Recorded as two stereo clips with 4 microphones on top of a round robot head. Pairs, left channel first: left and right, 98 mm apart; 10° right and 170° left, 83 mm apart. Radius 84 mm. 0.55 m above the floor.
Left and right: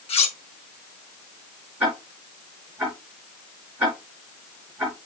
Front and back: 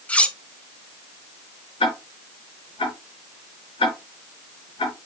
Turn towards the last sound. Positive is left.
turn(degrees=-10)